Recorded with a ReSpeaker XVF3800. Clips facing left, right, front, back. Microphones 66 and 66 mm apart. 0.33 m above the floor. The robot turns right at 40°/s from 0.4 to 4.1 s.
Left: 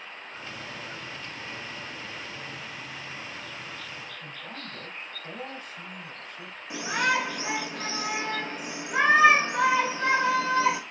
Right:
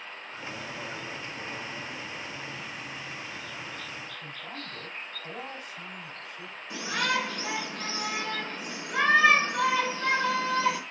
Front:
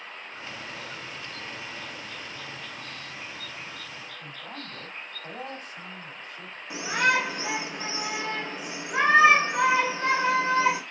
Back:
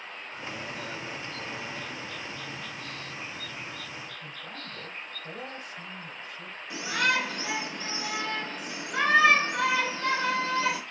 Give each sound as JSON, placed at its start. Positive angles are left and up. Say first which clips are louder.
{"t": 4.2, "sound": "a man speaking", "louder": "even, front 1 dB", "azimuth_deg": -10, "distance_m": 2.5}
{"t": 6.7, "sound": "a shout", "louder": "left 3 dB, front 3 dB", "azimuth_deg": 40, "distance_m": 1.2}